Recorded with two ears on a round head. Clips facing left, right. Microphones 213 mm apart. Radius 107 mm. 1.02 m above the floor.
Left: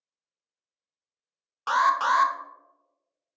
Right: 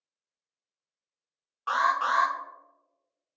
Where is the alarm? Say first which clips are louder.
Left 3 dB; 60° left (ahead or behind), 0.5 m.